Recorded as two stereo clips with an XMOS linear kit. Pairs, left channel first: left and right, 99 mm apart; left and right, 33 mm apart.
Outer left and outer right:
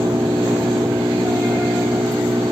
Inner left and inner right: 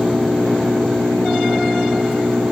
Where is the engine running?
30° right (ahead or behind).